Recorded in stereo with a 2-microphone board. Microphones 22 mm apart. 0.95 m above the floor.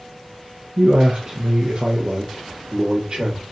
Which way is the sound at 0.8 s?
40° right (ahead or behind).